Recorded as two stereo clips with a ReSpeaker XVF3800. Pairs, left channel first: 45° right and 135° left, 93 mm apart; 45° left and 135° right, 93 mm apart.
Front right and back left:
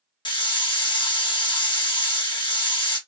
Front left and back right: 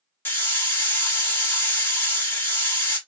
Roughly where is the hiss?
Ahead.